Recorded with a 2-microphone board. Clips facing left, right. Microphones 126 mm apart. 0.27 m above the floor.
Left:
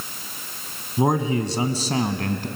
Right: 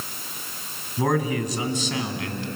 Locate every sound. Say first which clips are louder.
1.0 s a man speaking: left 2 dB; 20° left (ahead or behind), 1.8 m; by 2.5 s 45° left (ahead or behind), 2 m